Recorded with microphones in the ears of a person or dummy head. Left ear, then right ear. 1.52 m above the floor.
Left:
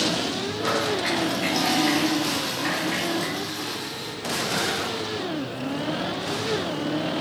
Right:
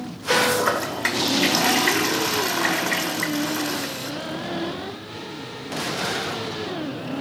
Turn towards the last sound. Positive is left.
turn(degrees=-50)  # may be behind; listen again after turning